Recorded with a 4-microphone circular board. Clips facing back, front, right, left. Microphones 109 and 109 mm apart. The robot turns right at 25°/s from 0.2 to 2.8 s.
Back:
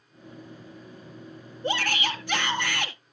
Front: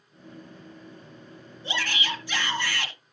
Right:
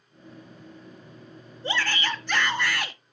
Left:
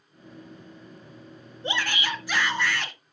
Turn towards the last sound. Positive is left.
turn(degrees=-170)